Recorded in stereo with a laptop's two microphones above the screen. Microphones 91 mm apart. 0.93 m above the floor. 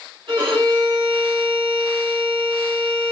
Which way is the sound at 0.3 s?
70° right (ahead or behind).